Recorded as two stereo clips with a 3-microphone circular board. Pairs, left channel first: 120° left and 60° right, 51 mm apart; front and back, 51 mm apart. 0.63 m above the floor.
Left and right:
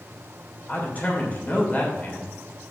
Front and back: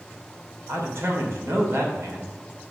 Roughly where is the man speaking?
Behind.